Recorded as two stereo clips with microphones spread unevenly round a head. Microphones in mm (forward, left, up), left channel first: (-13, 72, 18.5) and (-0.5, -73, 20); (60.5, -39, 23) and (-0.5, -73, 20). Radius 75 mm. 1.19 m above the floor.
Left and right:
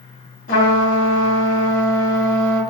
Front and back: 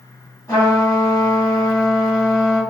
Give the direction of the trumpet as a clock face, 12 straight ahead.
9 o'clock.